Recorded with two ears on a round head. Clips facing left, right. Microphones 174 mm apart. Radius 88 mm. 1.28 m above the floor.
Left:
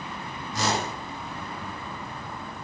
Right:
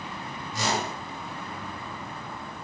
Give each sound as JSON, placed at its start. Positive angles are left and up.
{"t": 0.5, "sound": "a whoosh", "side_deg": 45, "distance_m": 1.6}